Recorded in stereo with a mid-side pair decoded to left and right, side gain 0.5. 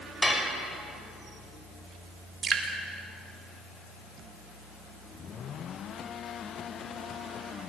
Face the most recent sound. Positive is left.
turn(degrees=-40)